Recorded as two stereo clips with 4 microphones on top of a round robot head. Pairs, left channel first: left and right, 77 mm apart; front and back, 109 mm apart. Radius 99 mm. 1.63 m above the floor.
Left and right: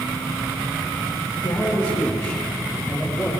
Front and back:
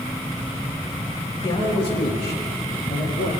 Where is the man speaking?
45° left, 3.5 m; by 3.3 s 10° left, 4 m.